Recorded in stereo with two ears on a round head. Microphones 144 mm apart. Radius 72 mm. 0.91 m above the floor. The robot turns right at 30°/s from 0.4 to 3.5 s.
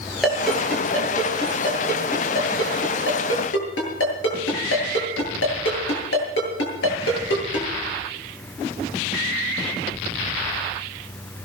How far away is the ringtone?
About 9 m.